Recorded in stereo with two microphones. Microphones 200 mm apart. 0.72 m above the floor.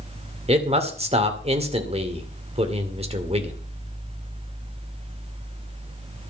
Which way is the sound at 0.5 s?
30° right (ahead or behind).